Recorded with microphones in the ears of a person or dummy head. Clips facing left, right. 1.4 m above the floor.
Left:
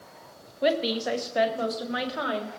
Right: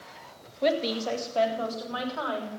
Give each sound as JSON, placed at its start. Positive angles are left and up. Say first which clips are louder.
{"t": 0.6, "sound": "a woman speaking", "louder": "left 1 dB", "side_deg": 5, "distance_m": 1.5}